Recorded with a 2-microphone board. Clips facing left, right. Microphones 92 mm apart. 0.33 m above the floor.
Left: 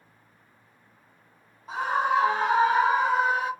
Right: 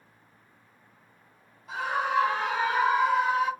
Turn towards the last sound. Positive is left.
turn(degrees=35)  # may be behind; listen again after turning